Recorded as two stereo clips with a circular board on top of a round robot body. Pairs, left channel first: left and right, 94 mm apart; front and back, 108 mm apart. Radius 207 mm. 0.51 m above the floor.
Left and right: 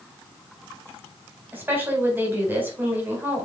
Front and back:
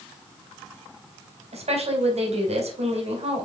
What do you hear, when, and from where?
1.5 s a woman speaking: 160° right, 4 m